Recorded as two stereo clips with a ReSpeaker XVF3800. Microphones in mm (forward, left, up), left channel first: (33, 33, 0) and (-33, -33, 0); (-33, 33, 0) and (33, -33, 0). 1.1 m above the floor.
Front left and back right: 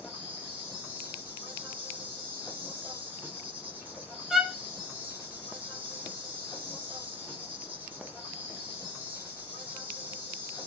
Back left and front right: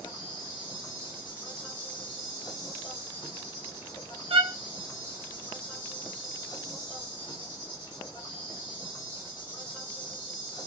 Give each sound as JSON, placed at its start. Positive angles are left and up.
{"t": 0.0, "sound": "an insect", "azimuth_deg": 155, "distance_m": 1.5}
{"t": 4.3, "sound": "a violin", "azimuth_deg": -50, "distance_m": 0.5}